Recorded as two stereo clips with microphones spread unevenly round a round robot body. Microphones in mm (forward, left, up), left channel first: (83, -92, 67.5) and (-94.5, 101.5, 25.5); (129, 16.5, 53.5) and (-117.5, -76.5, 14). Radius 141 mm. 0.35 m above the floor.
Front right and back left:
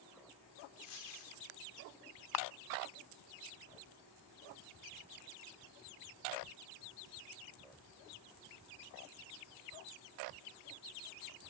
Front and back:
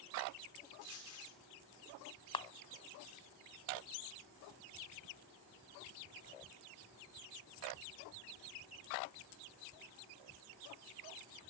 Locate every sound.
0.8 s a dropped coin: 15° right, 3 m
2.3 s a camera shutter: 55° right, 0.6 m